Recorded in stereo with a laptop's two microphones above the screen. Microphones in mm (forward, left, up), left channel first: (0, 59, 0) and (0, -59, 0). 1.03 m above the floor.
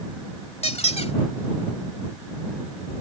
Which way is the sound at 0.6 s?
65° left (ahead or behind).